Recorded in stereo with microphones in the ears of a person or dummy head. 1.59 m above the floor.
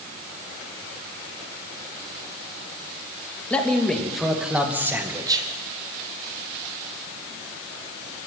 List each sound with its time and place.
3.5 s a man speaking: 5° left (ahead or behind), 3 m; by 5.5 s 25° right (ahead or behind), 1.6 m